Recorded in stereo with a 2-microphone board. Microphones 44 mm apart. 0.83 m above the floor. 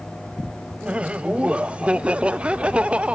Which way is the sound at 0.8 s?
25° right (ahead or behind).